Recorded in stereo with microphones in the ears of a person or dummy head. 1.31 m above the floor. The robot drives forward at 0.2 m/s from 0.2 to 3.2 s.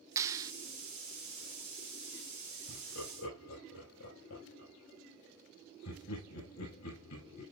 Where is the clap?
20° right (ahead or behind), 0.6 m.